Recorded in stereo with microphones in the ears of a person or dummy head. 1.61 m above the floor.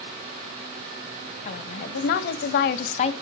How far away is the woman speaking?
About 1.1 m.